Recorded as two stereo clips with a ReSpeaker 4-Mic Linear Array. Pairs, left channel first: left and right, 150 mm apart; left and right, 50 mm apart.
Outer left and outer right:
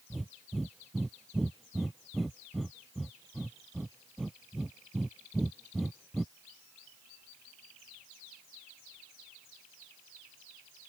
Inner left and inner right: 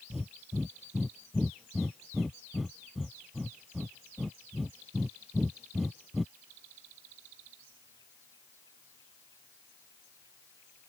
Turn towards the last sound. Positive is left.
turn(degrees=0)  # may be behind; listen again after turning